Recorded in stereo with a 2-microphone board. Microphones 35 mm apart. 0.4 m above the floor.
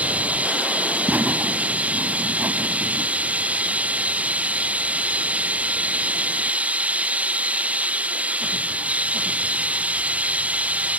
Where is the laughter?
55° right (ahead or behind).